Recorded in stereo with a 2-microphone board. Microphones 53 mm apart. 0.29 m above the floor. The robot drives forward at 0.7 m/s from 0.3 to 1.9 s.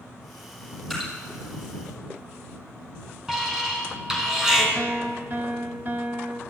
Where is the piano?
40° right (ahead or behind), 0.9 m.